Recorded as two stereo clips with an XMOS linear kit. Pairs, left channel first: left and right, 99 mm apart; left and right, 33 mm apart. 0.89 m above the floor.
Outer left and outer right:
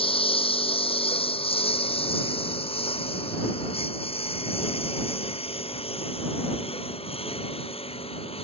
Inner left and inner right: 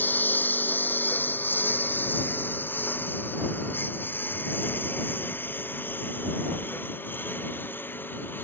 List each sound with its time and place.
0.0 s a lawn mower: 65° left (ahead or behind); by 8.4 s 80° left